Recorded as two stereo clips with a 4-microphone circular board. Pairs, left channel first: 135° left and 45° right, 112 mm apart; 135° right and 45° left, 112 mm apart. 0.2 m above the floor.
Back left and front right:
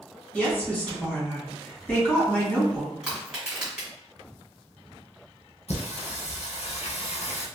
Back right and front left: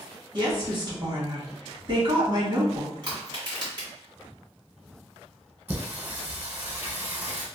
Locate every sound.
0.3 s a woman speaking: 65° left, 1.7 m
3.0 s crushing: 35° left, 2.0 m
5.7 s singing: 120° left, 1.2 m